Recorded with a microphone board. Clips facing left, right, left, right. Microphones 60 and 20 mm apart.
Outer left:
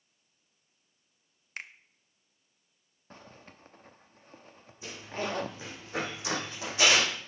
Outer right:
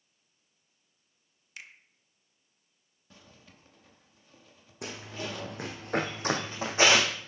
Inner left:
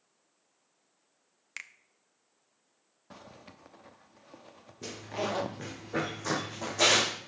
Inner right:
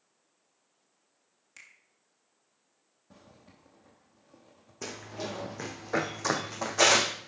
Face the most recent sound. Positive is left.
turn(degrees=-25)  # may be behind; listen again after turning